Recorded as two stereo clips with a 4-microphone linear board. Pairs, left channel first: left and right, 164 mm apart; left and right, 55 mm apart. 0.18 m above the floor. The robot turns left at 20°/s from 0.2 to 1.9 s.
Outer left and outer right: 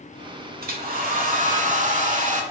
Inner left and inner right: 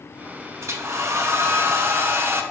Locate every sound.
0.6 s a hair dryer: 60° right (ahead or behind), 0.7 m; by 2.4 s 50° right (ahead or behind), 0.7 m